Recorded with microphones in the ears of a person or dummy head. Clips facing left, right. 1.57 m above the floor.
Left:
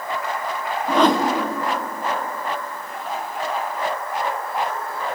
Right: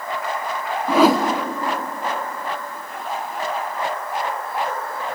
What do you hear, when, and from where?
0.9 s a whoosh: 10° right (ahead or behind), 0.9 m